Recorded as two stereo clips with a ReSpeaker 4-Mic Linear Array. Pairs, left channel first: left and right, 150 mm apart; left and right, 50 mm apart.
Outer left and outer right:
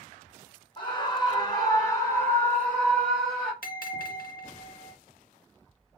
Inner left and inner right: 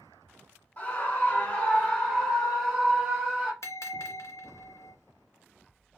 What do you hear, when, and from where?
0.8 s a scream: 30° left (ahead or behind), 1.1 m; by 3.5 s centre (ahead or behind), 1.7 m
3.6 s a bell: 75° left (ahead or behind), 0.7 m